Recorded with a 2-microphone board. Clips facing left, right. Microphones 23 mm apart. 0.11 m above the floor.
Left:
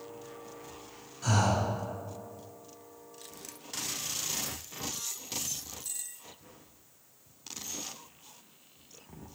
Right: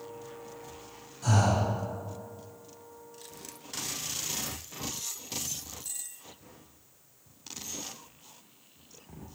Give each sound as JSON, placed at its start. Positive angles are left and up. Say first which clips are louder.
{"t": 1.2, "sound": "breathing", "louder": "right 1 dB", "side_deg": 20, "distance_m": 1.6}